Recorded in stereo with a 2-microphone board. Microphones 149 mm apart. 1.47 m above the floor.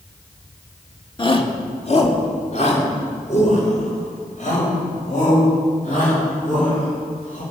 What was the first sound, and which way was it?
A shout, 35° left (ahead or behind).